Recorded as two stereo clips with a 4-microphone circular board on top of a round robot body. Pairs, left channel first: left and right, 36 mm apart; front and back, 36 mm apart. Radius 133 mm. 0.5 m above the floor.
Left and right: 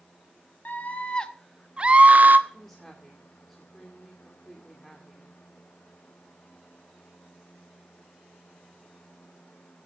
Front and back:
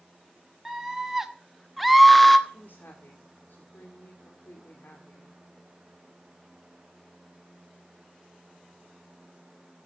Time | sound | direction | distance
0.7 | a scream | 100° left | 1.6 m
2.5 | a woman speaking | 20° left | 2.5 m